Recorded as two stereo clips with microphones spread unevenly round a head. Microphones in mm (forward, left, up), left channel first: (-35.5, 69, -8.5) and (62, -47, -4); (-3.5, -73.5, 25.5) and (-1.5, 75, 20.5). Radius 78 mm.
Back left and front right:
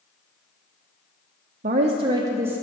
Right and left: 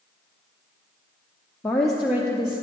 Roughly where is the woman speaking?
Ahead.